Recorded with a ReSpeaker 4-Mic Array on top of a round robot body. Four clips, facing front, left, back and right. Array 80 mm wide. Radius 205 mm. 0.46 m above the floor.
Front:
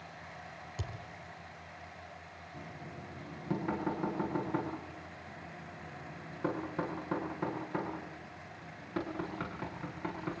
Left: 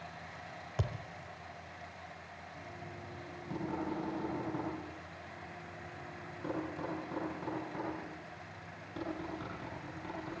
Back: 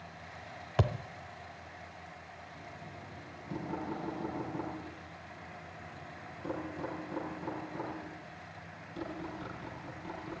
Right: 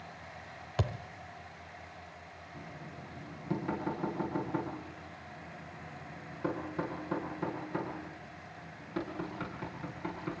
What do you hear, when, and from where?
0.8 s a thud: 165° right, 0.6 m
2.5 s knocking: 20° right, 9.5 m